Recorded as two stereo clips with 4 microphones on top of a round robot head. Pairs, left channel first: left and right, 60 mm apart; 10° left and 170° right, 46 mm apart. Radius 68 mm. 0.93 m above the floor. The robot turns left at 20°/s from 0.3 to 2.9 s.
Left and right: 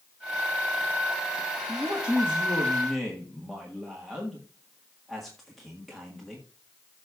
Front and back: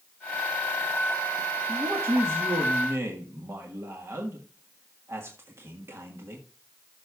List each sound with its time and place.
1.7 s a man speaking: 155° right, 1.5 m; by 6.5 s straight behind, 1.5 m